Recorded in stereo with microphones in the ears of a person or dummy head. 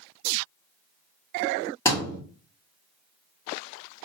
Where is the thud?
20° left (ahead or behind), 1.4 m.